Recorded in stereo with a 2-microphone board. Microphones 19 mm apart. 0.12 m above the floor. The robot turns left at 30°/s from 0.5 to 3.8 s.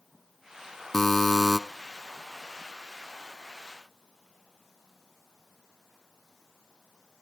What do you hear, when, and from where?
0.9 s a buzzer: 20° left (ahead or behind), 1.2 m; by 1.6 s 15° left (ahead or behind), 1.2 m